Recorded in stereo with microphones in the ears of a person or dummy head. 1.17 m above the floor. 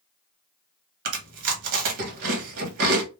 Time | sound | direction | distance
1.1 | chewing | 50° right (ahead or behind) | 1.1 m